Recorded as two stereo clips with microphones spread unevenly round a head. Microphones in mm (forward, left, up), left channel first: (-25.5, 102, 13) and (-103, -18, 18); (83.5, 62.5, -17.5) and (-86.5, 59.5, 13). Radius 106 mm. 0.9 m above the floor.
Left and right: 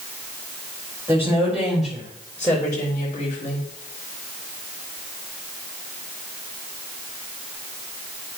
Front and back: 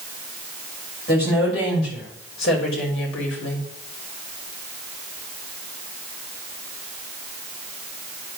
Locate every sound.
1.1 s a woman speaking: 45° right, 4 m; by 3.7 s straight ahead, 4 m